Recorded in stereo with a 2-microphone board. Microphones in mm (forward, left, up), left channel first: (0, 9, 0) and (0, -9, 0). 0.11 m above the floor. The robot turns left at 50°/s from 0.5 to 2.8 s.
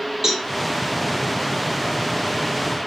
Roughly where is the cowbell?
Right.